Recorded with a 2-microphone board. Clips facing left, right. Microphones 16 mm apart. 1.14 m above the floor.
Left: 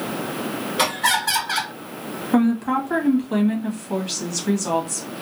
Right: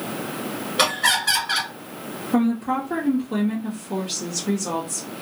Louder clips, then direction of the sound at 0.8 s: Right 1 dB; 20° right (ahead or behind).